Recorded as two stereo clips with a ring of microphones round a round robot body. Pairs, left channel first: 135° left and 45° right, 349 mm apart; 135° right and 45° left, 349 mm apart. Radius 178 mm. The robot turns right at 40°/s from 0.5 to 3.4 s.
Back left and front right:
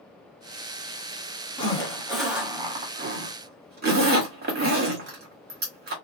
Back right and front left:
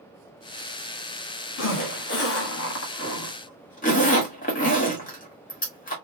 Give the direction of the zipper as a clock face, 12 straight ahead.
5 o'clock.